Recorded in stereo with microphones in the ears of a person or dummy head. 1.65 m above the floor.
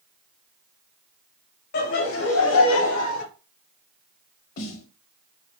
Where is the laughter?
55° left (ahead or behind), 0.9 m; by 3.2 s 80° left, 1.1 m.